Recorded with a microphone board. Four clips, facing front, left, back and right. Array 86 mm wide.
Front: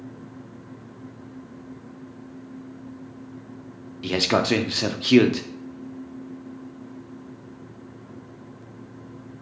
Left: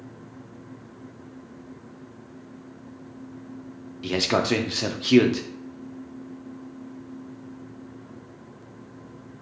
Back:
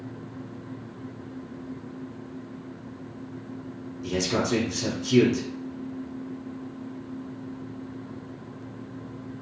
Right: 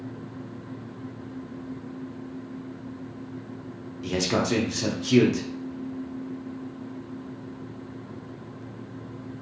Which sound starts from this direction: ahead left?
A man speaking, at 4.0 s.